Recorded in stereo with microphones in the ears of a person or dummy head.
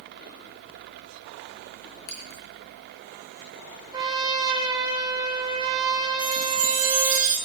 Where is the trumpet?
25° right (ahead or behind), 2 m.